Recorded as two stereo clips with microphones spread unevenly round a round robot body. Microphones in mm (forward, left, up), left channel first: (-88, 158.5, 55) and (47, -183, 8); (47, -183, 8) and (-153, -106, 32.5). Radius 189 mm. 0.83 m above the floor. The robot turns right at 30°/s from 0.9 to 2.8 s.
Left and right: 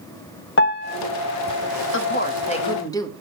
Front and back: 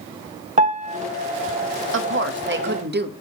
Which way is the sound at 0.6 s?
150° left.